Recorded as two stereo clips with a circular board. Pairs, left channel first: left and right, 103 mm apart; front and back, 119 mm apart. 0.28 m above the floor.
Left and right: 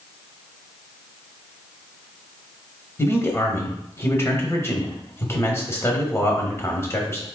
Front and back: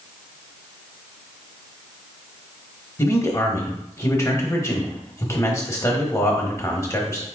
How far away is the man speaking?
About 1.0 m.